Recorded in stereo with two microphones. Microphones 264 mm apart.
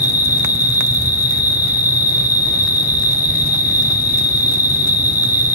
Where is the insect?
70° left (ahead or behind), 1.8 m.